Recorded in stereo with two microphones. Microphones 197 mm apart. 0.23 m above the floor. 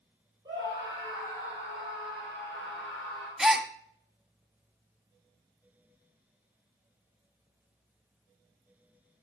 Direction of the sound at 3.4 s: Centre (ahead or behind).